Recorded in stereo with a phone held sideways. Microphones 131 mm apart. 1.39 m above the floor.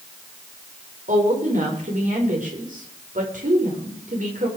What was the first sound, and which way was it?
A woman speaking, 85° right.